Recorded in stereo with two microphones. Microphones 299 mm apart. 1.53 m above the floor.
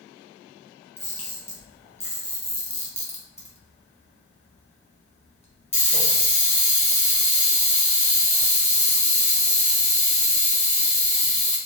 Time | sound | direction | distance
1.0 | a camera shutter | 20° left (ahead or behind) | 1.0 m